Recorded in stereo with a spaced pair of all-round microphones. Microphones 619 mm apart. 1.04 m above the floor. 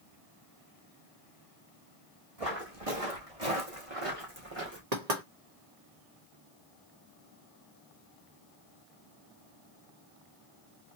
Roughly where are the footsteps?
Right.